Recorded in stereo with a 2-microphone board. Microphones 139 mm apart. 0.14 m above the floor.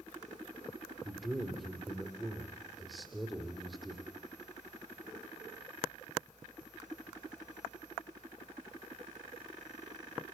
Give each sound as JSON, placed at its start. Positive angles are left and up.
{"t": 1.1, "sound": "a man speaking", "side_deg": 0, "distance_m": 4.5}